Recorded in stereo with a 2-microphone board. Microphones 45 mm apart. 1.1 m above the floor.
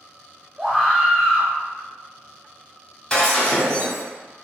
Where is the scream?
Centre (ahead or behind), 0.7 m.